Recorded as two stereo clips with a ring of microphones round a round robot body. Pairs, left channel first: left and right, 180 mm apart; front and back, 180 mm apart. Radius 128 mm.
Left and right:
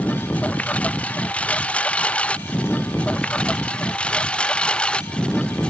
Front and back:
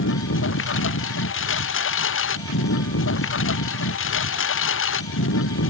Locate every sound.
0.0 s a lawn mower: 5° left